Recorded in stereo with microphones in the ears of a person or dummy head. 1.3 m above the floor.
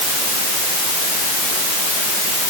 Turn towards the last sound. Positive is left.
No sound to turn to.